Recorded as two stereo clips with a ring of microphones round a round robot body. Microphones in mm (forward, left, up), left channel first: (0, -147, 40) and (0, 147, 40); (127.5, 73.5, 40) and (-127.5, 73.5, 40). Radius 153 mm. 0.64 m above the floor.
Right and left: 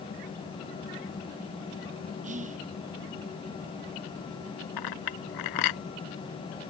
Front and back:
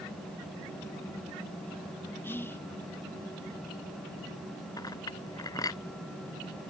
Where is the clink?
80° right.